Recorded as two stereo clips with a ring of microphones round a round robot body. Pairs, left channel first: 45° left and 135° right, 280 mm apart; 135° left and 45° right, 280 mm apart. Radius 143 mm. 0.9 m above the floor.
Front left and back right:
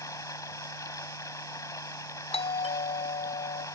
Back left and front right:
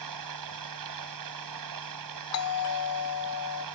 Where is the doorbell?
115° left.